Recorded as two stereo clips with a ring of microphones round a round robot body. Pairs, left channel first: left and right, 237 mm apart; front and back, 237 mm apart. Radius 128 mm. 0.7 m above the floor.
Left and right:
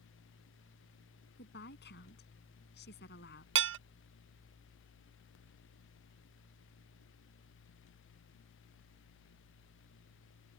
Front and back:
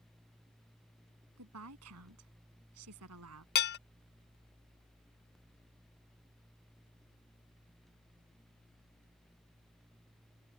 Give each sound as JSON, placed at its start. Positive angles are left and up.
{"t": 1.4, "sound": "a woman speaking", "azimuth_deg": 145}
{"t": 3.5, "sound": "dishes clattering", "azimuth_deg": -50}